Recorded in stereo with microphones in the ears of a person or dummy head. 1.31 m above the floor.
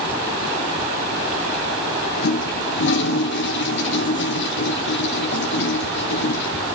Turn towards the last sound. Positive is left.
turn(degrees=70)  # may be behind; listen again after turning